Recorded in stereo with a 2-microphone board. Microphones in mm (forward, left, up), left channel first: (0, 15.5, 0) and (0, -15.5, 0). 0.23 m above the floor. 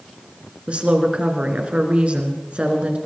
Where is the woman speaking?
45° right (ahead or behind), 2.5 m.